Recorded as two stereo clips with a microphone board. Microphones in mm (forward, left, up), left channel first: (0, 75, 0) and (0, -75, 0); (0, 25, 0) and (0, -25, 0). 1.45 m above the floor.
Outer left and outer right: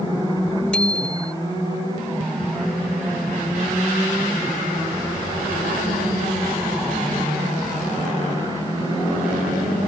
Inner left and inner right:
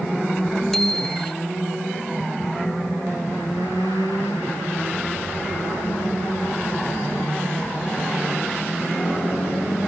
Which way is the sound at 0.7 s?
5° left (ahead or behind).